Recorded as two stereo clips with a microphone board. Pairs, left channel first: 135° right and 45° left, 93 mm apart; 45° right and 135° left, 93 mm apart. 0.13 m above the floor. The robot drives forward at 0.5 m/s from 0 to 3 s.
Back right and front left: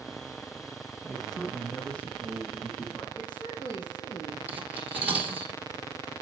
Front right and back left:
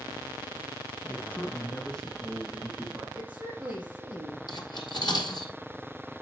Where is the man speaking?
45° right, 1.2 m; by 3.0 s 155° right, 1.3 m.